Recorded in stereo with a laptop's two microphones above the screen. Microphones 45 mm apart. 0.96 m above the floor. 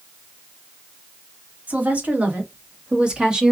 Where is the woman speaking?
40° right (ahead or behind), 2.5 m; by 3.5 s 15° right (ahead or behind), 1.6 m.